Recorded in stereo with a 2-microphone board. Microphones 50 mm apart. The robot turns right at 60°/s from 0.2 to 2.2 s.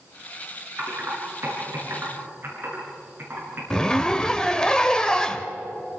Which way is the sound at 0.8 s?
50° right (ahead or behind).